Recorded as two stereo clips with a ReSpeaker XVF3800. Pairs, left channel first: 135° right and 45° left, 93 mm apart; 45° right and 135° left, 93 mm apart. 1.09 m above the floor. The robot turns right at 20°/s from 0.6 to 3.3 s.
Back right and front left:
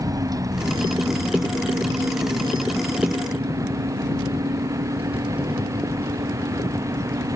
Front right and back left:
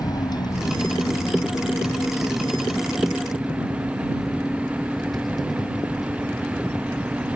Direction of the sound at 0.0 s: Straight ahead.